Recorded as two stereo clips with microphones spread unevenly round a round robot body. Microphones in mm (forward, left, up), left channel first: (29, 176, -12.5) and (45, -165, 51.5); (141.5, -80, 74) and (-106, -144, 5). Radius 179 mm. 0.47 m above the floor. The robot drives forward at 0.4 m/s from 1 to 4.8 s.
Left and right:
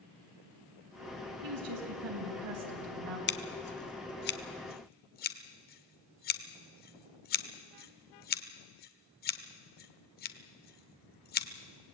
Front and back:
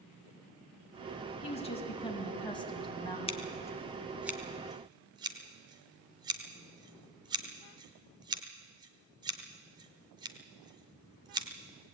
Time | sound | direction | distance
1.4 | a woman speaking | 55° right | 4.5 m
3.3 | scissors | 95° left | 0.9 m